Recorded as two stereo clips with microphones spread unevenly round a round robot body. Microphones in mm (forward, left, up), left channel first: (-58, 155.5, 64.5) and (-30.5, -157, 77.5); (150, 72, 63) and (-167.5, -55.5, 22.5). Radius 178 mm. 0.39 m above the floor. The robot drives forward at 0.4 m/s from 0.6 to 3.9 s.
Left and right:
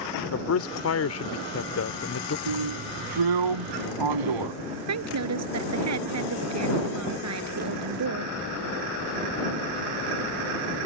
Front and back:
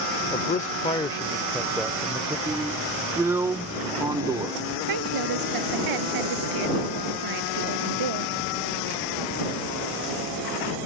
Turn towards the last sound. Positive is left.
turn(degrees=-125)